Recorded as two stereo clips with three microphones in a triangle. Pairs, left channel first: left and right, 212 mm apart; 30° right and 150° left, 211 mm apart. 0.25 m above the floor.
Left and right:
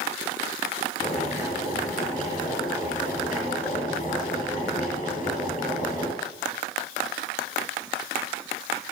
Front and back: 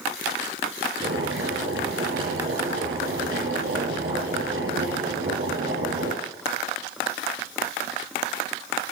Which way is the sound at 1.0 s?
145° left.